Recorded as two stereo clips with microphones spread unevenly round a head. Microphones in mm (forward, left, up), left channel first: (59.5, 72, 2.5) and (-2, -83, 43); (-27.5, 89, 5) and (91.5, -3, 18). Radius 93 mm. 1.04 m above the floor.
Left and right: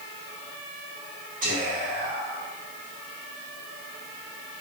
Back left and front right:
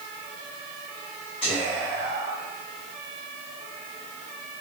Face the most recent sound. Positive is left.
turn(degrees=-160)